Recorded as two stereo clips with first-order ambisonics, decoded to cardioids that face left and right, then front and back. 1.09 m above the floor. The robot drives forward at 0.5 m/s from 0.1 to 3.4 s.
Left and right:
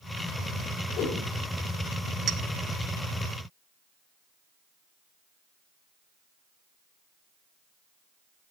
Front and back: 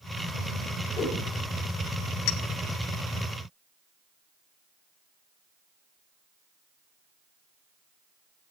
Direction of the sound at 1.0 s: 60° left.